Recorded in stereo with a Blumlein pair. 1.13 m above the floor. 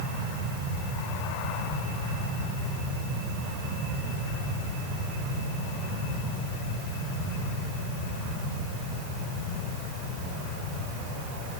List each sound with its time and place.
Only background noise.